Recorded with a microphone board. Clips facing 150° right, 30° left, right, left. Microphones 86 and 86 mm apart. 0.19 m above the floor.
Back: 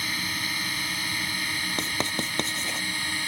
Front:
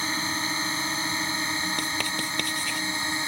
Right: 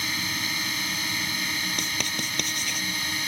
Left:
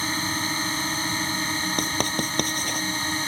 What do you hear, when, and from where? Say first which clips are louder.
0.0 s a drone: front 3 dB, left 4 dB; 70° left; by 3.3 s 75° left
1.8 s writing: even, left 6 dB; 140° left